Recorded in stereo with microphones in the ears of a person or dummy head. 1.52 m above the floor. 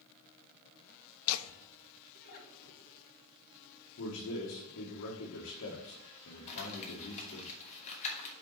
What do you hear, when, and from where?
1.3 s laughter: 75° left (ahead or behind), 0.6 m; by 3.0 s 50° left (ahead or behind), 3 m
4.0 s a man speaking: 70° left (ahead or behind), 1.4 m
6.5 s crumpling: 40° left (ahead or behind), 2.5 m